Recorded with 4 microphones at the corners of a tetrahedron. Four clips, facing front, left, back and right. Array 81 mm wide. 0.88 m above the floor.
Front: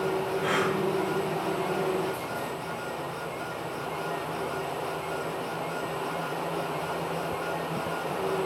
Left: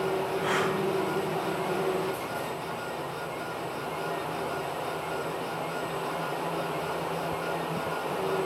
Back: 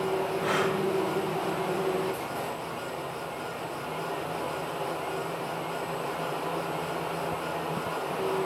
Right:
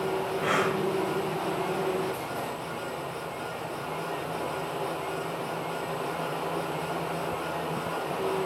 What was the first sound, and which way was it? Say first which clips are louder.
Breathing: right 3 dB, front 1 dB; 105° right.